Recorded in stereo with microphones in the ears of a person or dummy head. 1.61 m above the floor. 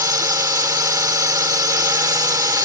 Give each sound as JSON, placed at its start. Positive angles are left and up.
{"t": 0.0, "sound": "a drone", "side_deg": -25}